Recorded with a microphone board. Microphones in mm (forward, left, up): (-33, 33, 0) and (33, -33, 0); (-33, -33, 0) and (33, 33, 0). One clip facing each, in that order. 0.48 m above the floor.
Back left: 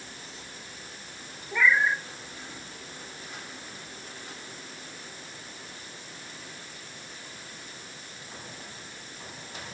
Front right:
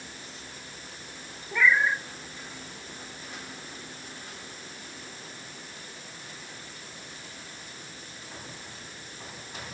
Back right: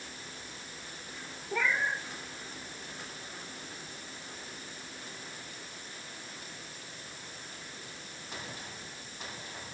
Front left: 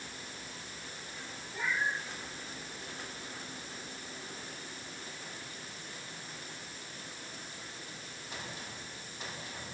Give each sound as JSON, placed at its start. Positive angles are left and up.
{"t": 1.5, "sound": "a cat meowing", "azimuth_deg": -135, "distance_m": 2.0}